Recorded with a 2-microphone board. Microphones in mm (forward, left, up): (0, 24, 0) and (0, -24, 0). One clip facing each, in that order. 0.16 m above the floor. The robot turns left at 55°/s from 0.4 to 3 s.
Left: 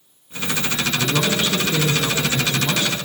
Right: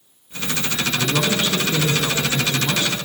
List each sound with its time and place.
1.0 s a man speaking: 10° left (ahead or behind), 1.2 m; by 3.0 s 20° left (ahead or behind), 1.2 m